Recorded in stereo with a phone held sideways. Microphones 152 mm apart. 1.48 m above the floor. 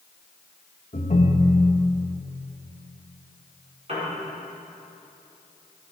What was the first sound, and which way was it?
A ringtone, 50° left (ahead or behind).